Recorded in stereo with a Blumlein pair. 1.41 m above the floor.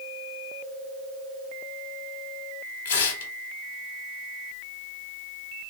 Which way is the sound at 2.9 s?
60° left.